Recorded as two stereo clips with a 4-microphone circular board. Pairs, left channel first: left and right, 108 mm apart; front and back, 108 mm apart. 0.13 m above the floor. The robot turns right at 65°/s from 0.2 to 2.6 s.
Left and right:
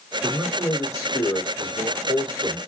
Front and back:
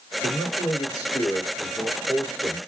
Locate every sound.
0.2 s a man speaking: 5° right, 1.8 m; by 2.6 s 145° left, 1.8 m